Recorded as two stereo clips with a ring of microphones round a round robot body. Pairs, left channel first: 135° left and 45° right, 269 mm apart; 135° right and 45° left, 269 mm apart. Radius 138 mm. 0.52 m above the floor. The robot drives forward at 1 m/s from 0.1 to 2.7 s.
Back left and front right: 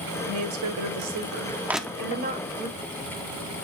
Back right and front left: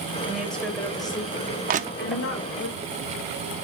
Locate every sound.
0.3 s a woman speaking: 40° right, 2.5 m; by 2.7 s 115° right, 1.9 m
1.7 s crushing: 30° left, 0.7 m; by 2.2 s 145° left, 0.7 m